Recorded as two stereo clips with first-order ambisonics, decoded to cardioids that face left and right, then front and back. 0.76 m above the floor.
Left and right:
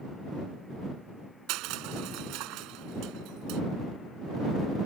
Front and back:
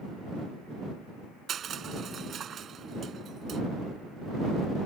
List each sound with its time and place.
1.5 s crushing: 120° right